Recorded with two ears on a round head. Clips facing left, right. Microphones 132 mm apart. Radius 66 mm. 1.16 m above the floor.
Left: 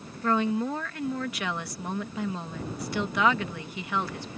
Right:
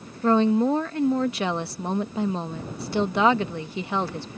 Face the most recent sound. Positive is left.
turn(degrees=-25)  # may be behind; listen again after turning